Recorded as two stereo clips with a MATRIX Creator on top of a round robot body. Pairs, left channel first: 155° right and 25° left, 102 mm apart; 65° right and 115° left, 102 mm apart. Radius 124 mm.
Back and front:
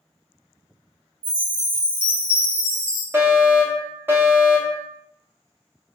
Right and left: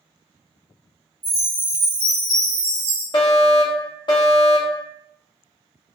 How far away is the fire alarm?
About 1.4 m.